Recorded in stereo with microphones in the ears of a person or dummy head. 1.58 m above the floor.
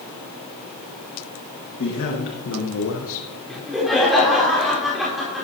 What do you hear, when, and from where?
1.8 s a man speaking: 60° left (ahead or behind), 1.7 m; by 3.3 s 70° left (ahead or behind), 0.7 m
3.5 s laughter: centre (ahead or behind), 4 m